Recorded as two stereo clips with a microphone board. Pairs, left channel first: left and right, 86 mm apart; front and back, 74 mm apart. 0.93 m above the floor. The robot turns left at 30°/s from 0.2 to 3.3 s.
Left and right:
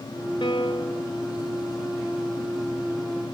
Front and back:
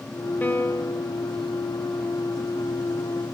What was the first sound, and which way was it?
A piano, 65° left.